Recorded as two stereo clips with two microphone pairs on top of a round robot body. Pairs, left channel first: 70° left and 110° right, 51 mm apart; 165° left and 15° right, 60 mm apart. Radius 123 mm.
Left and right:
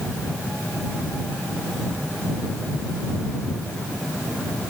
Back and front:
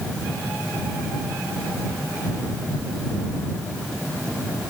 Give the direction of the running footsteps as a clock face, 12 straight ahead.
I don't hear running footsteps.